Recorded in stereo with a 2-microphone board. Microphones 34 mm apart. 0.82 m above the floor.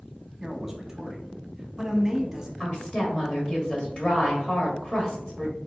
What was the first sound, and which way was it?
A man speaking, 15° right (ahead or behind).